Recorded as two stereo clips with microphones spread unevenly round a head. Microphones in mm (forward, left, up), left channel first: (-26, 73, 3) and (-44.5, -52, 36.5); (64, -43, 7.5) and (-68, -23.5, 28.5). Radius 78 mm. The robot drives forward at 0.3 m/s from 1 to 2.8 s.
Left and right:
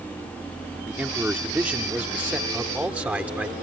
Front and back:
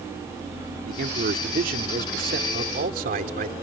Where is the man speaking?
175° right.